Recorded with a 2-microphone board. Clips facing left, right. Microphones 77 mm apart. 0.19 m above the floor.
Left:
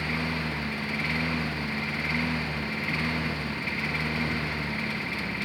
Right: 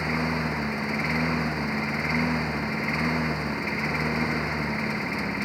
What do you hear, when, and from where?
0.0 s a lawn mower: 20° right (ahead or behind)